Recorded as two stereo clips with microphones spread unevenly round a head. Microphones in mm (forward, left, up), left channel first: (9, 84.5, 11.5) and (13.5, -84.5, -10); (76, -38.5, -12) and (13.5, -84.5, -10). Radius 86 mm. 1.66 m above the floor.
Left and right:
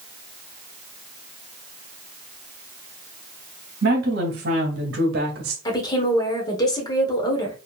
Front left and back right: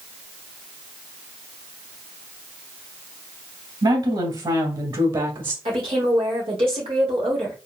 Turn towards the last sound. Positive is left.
turn(degrees=160)